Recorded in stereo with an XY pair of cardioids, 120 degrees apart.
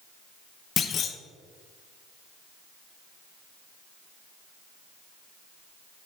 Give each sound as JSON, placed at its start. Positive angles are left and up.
{"t": 0.8, "sound": "a clunk", "azimuth_deg": 50, "distance_m": 0.5}